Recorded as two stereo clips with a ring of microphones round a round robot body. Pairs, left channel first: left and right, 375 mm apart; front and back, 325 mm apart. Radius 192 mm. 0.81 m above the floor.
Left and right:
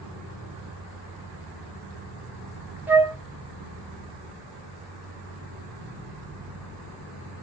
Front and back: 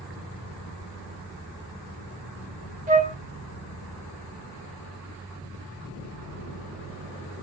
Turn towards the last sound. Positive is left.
turn(degrees=-170)